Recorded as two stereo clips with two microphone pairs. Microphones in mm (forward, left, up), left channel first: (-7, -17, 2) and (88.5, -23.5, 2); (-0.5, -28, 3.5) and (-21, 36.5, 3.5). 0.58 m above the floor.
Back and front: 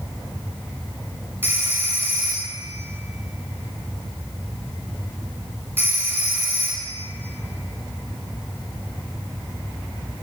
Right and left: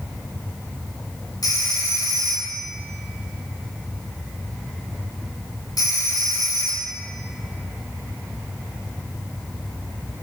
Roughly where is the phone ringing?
Right.